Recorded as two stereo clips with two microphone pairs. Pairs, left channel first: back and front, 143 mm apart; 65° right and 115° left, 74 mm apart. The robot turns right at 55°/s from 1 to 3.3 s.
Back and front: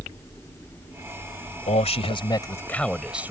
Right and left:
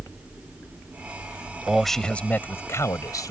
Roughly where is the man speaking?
Behind.